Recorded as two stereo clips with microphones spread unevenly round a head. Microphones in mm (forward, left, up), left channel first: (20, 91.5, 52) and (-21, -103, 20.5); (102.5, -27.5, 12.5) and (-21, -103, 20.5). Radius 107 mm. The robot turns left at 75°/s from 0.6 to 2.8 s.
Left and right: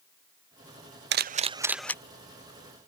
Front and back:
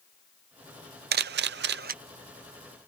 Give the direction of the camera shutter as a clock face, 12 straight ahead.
5 o'clock.